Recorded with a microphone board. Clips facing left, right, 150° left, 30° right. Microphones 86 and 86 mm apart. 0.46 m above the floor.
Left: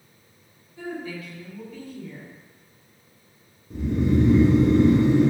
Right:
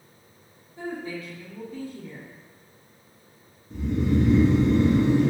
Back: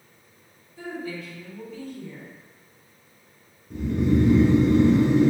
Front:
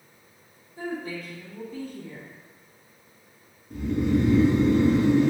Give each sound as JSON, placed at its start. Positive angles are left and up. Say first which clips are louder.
{"t": 0.8, "sound": "a woman speaking", "louder": "even, front 1 dB", "azimuth_deg": -50, "distance_m": 1.1}
{"t": 3.7, "sound": "snoring", "louder": "left 2 dB, back 2 dB", "azimuth_deg": 85, "distance_m": 1.6}